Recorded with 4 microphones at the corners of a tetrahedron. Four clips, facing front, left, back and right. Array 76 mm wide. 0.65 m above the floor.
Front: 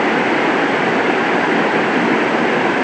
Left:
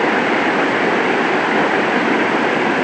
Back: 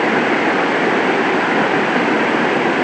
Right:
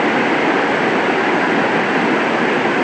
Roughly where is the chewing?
No chewing in this recording.